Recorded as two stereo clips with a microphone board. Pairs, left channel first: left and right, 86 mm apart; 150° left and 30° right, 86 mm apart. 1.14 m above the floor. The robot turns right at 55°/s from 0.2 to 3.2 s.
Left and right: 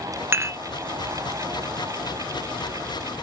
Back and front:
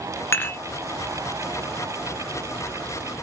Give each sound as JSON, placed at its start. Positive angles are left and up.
{"t": 0.3, "sound": "dishes clattering", "azimuth_deg": -150, "distance_m": 0.6}